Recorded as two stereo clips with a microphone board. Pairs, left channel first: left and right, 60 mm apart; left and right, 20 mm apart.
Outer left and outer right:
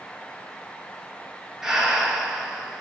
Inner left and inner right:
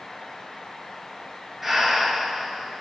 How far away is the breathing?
About 0.8 m.